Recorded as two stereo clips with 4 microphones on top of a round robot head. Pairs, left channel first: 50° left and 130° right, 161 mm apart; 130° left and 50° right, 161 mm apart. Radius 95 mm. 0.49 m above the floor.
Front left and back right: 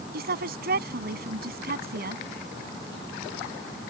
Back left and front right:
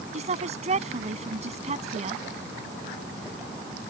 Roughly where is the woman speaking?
Right.